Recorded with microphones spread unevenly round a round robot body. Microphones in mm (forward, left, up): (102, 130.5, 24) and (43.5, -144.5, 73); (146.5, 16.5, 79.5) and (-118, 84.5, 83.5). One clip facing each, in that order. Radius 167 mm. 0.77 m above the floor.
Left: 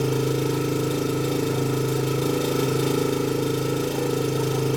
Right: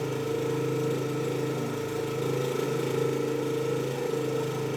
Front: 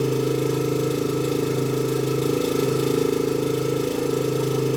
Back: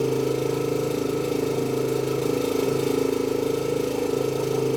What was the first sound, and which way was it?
An engine running, 50° left.